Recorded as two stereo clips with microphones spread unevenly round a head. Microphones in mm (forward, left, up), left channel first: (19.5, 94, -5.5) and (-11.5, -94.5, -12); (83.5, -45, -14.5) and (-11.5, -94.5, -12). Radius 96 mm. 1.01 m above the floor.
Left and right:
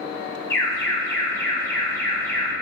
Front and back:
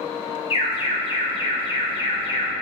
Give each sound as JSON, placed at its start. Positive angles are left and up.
{"t": 0.5, "sound": "an alarm", "azimuth_deg": 5, "distance_m": 1.6}